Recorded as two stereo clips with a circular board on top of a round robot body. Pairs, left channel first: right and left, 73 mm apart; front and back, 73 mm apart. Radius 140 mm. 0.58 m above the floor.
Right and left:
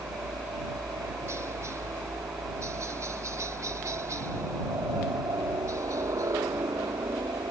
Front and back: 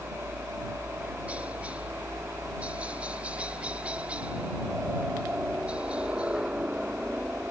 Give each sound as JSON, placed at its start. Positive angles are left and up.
{"t": 0.0, "sound": "a helicopter", "azimuth_deg": 115}